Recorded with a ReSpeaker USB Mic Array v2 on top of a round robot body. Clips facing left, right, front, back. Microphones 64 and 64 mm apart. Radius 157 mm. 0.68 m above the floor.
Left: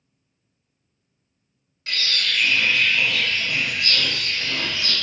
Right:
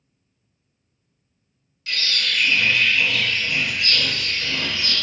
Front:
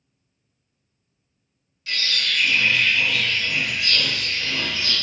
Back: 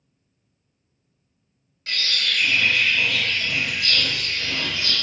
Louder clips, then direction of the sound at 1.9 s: Even, even; 140° left.